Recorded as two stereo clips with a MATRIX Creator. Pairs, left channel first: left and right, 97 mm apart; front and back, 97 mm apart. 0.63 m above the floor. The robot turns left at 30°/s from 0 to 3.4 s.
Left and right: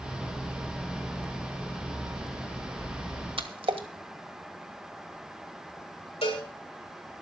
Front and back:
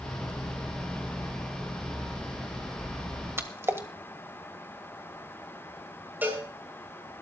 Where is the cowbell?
105° left, 3.5 m.